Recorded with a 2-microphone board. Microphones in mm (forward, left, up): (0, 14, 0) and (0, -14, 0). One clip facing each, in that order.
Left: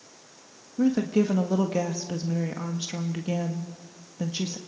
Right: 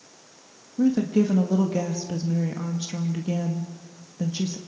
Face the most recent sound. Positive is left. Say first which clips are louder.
# right 2 dB
turn(degrees=20)  # may be behind; listen again after turning